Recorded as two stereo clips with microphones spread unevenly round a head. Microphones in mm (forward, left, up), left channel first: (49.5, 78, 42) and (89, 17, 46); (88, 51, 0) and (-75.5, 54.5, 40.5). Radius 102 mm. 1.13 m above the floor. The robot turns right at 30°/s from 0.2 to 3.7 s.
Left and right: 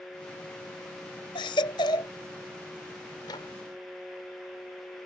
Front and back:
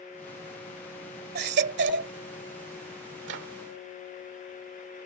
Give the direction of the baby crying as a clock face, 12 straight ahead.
7 o'clock.